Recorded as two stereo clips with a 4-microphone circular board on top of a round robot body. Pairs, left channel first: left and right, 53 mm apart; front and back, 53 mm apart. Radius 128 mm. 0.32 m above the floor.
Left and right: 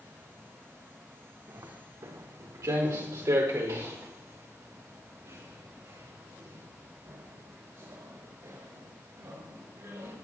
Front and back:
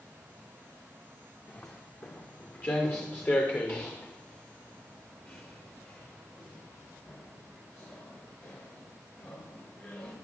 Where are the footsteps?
55° right, 2.5 m; by 10.1 s 50° right, 8.5 m.